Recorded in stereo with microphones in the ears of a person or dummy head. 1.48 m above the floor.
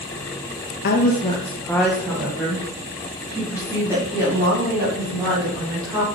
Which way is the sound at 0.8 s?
55° left (ahead or behind).